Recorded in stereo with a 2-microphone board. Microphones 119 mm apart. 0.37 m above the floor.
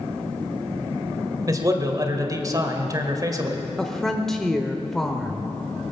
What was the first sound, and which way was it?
A man speaking, 30° right (ahead or behind).